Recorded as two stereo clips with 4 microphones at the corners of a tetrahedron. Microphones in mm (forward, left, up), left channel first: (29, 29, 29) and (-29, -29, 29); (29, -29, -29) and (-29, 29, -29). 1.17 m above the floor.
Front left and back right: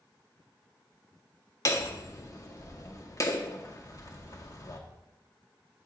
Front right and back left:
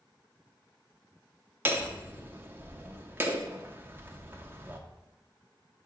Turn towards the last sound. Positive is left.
turn(degrees=80)